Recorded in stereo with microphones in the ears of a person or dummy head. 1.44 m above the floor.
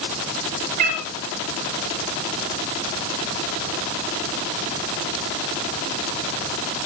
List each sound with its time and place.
0.8 s a cat meowing: 50° right (ahead or behind), 4.5 m